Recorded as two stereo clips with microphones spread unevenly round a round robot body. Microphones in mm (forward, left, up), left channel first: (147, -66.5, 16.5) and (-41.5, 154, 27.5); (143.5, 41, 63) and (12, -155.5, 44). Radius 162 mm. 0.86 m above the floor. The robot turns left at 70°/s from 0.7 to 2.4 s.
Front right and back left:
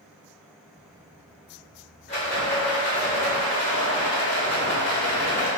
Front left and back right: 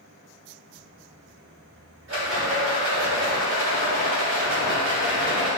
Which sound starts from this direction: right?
A rattle, at 2.1 s.